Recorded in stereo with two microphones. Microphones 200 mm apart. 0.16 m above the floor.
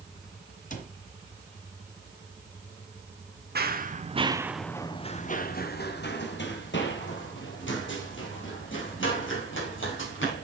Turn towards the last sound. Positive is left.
turn(degrees=80)